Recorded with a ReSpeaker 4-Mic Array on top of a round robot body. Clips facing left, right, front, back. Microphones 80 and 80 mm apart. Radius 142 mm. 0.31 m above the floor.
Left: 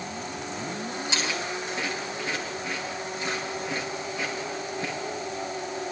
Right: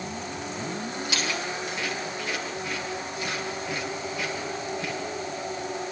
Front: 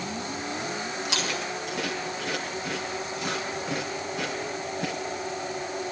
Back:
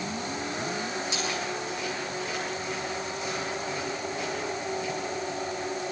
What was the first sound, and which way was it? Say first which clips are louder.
Chewing: even, even; 25° left.